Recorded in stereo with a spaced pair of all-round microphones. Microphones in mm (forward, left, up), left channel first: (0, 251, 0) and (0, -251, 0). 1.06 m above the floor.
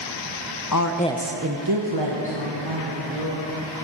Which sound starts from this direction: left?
A woman speaking, at 0.7 s.